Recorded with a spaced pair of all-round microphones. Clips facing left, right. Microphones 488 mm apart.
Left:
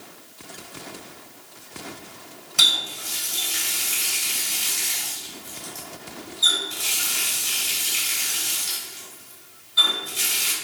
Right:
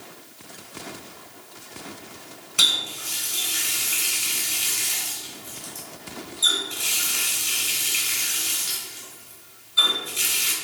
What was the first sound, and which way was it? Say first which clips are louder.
A running tap: even; 15° left (ahead or behind).